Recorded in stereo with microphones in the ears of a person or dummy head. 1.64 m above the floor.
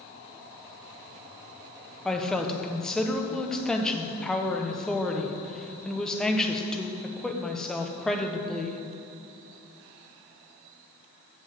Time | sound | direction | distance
2.0 | a woman speaking | 5° left (ahead or behind) | 0.9 m